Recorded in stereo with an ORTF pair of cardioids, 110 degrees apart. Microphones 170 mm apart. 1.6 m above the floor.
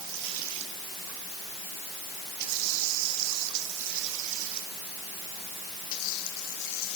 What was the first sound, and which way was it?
Only background noise.